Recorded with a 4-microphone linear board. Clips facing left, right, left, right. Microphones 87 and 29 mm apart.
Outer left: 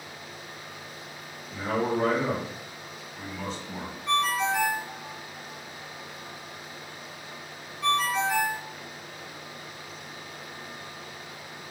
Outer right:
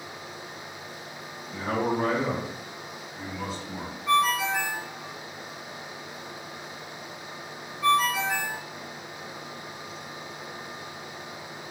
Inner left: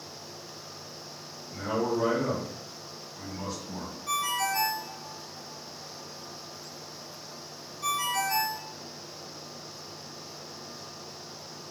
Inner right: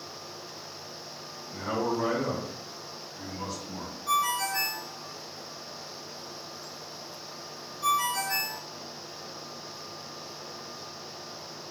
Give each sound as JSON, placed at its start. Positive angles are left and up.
{"t": 1.5, "sound": "a man speaking", "side_deg": -55, "distance_m": 1.8}
{"t": 4.1, "sound": "a ringtone", "side_deg": -5, "distance_m": 1.4}